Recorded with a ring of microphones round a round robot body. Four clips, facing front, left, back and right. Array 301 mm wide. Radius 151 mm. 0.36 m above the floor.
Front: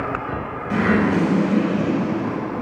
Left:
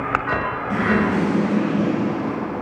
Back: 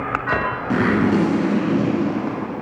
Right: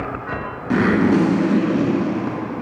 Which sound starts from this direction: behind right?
A zipper, at 0.7 s.